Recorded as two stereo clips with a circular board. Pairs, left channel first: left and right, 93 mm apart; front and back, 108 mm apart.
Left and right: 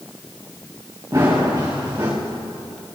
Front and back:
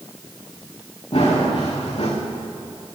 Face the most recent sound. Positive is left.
turn(degrees=-30)